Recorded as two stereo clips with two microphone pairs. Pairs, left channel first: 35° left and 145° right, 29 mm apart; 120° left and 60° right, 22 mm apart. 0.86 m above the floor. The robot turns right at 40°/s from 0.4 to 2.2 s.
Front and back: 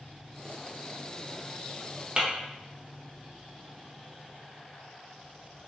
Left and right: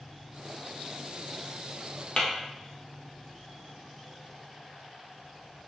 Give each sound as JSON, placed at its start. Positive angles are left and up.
{"t": 2.2, "sound": "tapping", "azimuth_deg": 155, "distance_m": 0.7}